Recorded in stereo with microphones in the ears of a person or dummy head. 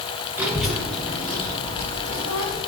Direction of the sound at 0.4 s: 5° right (ahead or behind).